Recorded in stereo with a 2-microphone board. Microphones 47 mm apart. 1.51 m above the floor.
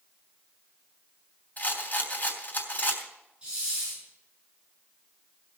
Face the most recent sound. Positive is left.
turn(degrees=-25)  # may be behind; listen again after turning